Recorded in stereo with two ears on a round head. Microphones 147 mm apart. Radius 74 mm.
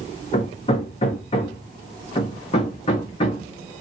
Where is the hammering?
35° left (ahead or behind), 0.8 m.